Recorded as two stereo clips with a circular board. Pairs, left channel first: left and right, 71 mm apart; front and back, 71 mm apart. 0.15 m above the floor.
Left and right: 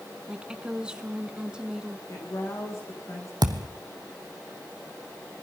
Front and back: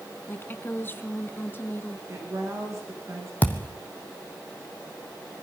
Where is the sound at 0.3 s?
20° right, 1.4 m.